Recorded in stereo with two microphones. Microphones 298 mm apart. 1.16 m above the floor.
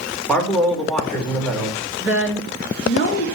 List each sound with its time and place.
0.3 s a man speaking: 5° left (ahead or behind), 4 m
2.0 s a woman speaking: 40° left (ahead or behind), 3 m